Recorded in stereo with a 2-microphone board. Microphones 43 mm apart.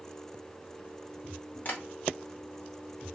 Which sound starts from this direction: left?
Tapping, at 1.6 s.